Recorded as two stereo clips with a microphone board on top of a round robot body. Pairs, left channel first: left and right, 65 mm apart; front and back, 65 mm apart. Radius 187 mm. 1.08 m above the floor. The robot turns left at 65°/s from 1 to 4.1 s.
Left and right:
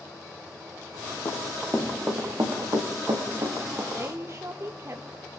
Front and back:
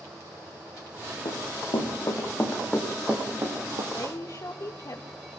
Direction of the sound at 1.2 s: 25° left.